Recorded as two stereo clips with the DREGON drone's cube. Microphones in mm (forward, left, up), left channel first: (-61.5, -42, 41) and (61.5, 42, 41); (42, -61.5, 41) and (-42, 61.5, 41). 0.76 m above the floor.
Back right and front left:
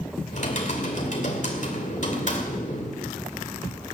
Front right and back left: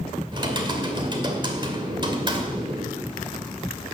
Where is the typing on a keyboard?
Straight behind, 2.5 m.